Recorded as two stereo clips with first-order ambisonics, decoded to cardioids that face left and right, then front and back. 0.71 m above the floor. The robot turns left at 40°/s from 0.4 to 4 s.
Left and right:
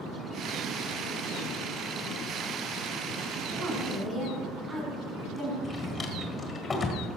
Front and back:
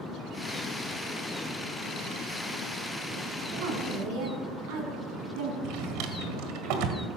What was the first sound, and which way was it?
A woman speaking, 150° right.